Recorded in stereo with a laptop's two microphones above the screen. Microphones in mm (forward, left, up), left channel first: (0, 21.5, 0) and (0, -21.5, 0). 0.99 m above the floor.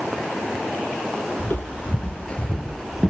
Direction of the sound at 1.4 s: 40° left (ahead or behind).